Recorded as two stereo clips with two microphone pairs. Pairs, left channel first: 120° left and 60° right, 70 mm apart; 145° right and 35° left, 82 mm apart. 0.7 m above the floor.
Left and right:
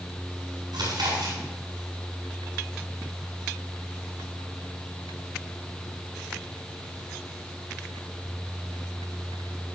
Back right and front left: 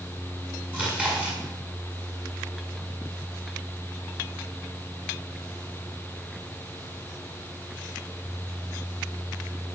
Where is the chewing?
40° right, 7 m.